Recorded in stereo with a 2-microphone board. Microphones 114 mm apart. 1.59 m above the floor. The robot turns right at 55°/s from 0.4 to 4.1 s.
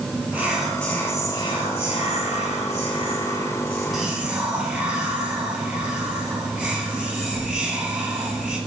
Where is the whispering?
10° right, 1.4 m; by 8.6 s 165° right, 1.4 m.